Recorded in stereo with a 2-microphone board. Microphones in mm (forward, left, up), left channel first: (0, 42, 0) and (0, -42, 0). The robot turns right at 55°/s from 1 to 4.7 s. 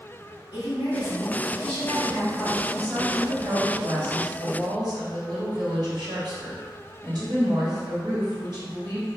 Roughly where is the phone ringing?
I don't hear a phone ringing.